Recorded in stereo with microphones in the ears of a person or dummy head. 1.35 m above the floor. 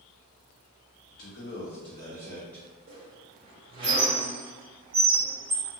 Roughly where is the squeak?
Right.